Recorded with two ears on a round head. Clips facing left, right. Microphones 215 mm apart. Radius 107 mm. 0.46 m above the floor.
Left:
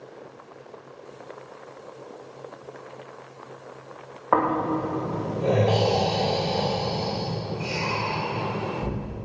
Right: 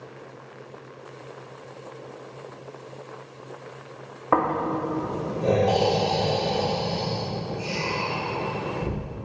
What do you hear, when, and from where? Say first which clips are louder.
4.3 s snoring: left 1 dB; 45° right (ahead or behind), 6 m